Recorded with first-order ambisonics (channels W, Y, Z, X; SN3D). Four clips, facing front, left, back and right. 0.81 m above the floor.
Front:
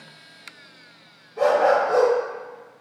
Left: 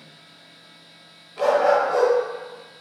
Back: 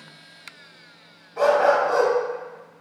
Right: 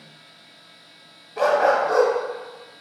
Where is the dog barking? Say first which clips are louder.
Even, even; 130° right, 1.6 m.